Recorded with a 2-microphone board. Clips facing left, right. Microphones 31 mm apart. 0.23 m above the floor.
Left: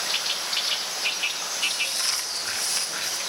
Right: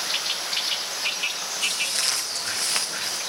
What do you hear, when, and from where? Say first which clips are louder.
1.6 s footsteps: right 1 dB; 70° right (ahead or behind), 3.5 m; by 3.2 s 45° right (ahead or behind), 1.8 m